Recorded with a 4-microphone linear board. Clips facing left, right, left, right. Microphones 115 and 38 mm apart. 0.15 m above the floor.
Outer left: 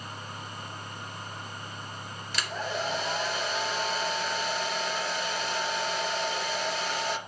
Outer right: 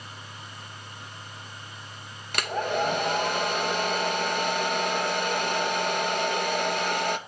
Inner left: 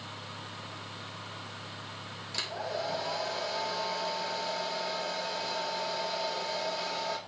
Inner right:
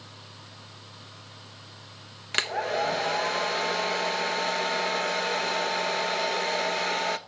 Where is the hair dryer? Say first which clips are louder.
Outer right 6 dB, inner right 9 dB; 65° right (ahead or behind), 0.6 m.